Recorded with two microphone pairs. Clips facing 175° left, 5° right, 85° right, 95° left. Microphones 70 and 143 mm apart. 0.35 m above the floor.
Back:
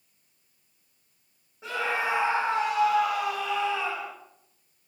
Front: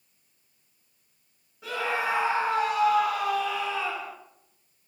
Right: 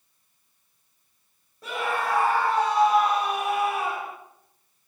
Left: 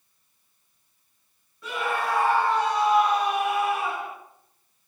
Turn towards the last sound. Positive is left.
turn(degrees=-125)